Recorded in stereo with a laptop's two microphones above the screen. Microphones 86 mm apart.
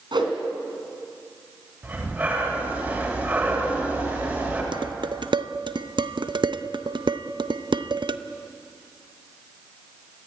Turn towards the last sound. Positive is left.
turn(degrees=-70)  # may be behind; listen again after turning